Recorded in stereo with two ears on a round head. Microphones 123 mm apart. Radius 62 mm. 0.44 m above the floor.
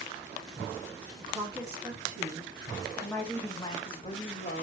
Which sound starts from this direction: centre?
A woman speaking, at 1.2 s.